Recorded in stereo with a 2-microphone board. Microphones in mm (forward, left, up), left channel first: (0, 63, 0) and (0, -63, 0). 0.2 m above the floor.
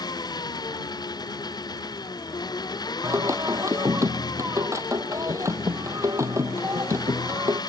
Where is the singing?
25° right (ahead or behind).